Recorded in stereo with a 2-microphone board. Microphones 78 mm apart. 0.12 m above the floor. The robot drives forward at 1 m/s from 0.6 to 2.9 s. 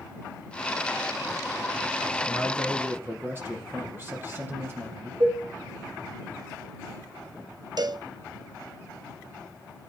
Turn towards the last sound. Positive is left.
turn(degrees=-60)  # may be behind; listen again after turning